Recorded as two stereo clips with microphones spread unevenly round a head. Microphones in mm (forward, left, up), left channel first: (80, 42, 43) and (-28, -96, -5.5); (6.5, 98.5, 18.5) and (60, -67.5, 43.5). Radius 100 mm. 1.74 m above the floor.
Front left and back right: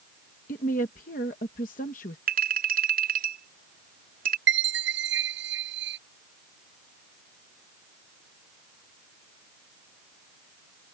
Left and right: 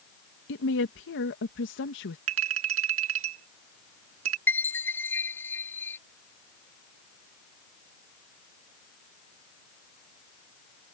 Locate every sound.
0.5 s a woman speaking: 100° left
2.3 s a clink: 90° right
4.5 s a chime: 170° right